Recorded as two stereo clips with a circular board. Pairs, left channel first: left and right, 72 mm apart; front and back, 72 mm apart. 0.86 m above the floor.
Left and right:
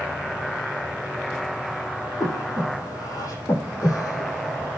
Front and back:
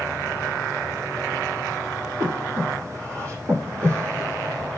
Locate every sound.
2.2 s breathing: 130° left, 8 m